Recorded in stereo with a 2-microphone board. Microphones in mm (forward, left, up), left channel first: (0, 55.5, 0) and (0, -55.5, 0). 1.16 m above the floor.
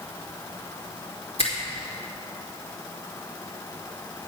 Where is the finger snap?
75° left (ahead or behind), 2.5 m.